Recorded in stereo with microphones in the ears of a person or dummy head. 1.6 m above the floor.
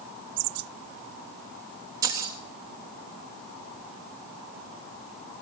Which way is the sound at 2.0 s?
20° right (ahead or behind).